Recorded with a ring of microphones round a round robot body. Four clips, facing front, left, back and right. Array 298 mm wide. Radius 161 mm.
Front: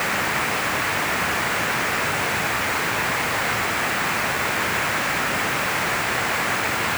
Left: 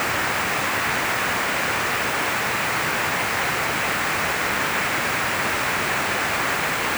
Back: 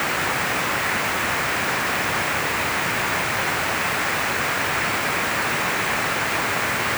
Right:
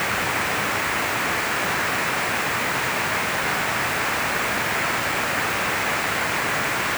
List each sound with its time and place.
Only background noise.